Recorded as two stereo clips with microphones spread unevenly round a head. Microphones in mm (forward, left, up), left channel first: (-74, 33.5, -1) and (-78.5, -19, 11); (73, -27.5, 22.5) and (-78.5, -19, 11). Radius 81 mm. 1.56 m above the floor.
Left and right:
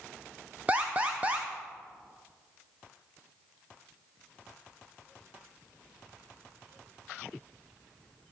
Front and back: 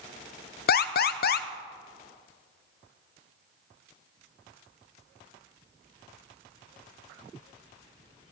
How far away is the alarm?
About 0.6 m.